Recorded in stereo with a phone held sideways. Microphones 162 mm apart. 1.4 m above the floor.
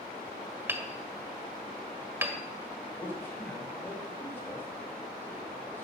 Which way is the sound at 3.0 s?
15° left (ahead or behind).